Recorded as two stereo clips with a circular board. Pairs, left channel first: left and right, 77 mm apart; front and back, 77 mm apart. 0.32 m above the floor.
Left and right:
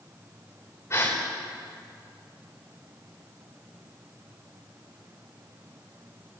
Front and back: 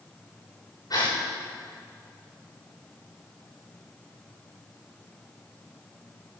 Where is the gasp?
35° left, 6.5 m.